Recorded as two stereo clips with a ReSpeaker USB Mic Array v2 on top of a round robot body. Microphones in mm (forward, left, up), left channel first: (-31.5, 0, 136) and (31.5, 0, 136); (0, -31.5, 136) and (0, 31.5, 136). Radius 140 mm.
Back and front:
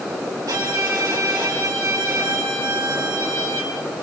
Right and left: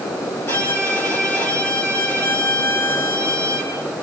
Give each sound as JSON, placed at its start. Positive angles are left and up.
{"t": 0.5, "sound": "a violin", "azimuth_deg": -35, "distance_m": 5.5}